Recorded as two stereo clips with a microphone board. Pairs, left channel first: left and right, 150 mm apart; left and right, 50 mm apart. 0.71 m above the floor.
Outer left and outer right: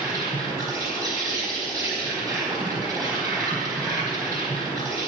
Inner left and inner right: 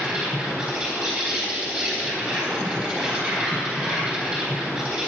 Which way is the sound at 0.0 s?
20° right (ahead or behind).